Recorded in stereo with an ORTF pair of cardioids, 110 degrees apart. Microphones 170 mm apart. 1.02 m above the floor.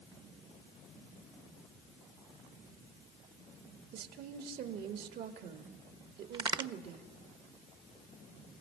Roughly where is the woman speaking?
Right.